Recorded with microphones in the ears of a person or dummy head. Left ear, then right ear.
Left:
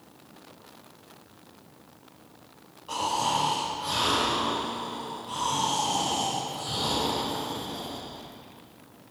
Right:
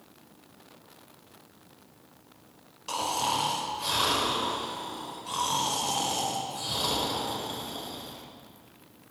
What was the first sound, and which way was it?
Snoring, 70° right (ahead or behind).